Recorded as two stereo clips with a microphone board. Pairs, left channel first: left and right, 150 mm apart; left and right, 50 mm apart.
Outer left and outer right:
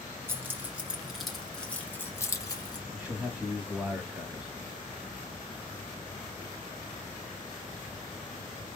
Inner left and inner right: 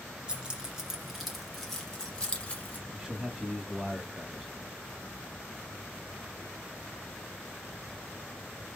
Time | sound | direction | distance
0.3 | keys jangling | 15° right (ahead or behind) | 1.8 m
2.9 | a man speaking | 10° right (ahead or behind) | 1.2 m